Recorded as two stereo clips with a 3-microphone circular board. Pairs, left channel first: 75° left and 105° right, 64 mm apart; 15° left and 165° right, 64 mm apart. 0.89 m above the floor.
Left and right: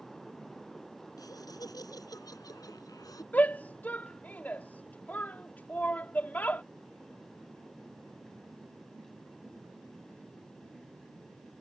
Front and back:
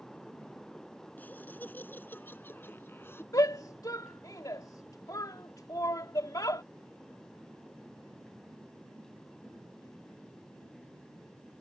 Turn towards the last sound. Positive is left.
turn(degrees=15)